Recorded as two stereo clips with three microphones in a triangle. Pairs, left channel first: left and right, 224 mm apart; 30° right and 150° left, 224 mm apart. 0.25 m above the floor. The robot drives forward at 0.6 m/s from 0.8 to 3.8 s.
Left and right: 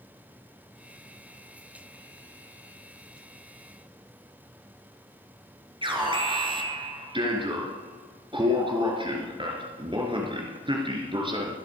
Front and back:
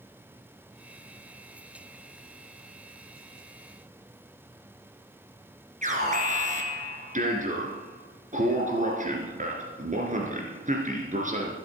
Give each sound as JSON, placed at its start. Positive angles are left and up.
{"t": 5.8, "sound": "an alarm", "azimuth_deg": -155, "distance_m": 3.0}